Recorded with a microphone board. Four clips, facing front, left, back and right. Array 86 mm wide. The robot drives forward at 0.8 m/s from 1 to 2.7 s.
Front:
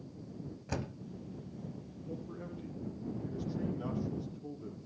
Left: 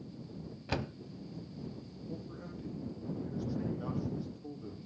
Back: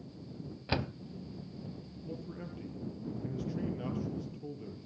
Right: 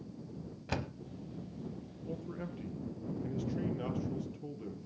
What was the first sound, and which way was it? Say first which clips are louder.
A door slam: left 2 dB, back 5 dB; 170° left.